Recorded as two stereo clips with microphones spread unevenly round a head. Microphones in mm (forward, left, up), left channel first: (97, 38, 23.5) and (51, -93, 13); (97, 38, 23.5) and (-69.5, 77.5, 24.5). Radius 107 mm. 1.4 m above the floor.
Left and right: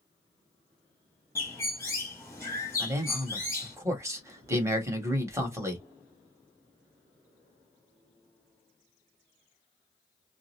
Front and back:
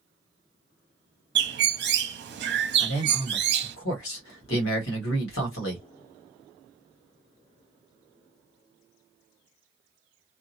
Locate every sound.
1.4 s a bird: 150° left, 0.7 m
2.8 s a man speaking: 40° right, 1.3 m